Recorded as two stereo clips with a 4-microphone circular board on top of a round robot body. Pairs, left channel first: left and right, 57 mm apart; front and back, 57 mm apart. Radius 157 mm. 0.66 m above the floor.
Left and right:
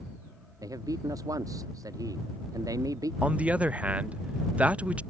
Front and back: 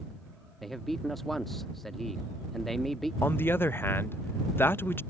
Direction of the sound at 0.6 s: 85° right.